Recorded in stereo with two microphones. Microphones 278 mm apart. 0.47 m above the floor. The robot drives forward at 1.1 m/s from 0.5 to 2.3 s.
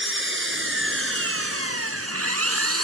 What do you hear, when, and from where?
0.0 s an engine running: 50° right (ahead or behind); by 2.8 s 60° right (ahead or behind)